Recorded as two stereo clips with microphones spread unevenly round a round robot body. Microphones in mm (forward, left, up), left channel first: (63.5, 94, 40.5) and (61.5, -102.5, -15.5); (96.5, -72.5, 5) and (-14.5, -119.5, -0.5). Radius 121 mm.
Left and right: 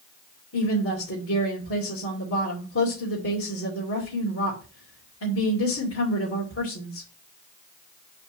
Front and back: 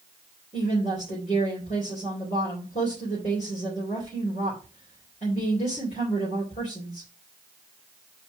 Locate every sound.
0.5 s a woman speaking: 75° left, 2.5 m